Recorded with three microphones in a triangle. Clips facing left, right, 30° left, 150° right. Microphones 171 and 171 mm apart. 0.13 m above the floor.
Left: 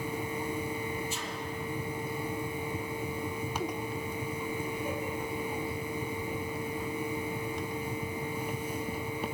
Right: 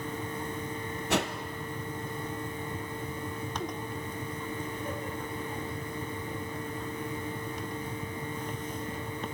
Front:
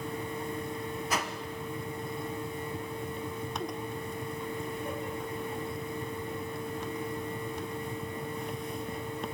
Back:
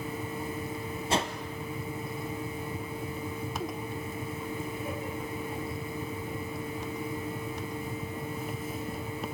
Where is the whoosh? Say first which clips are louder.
Right 9 dB, back 6 dB; 90° right, 1.4 m.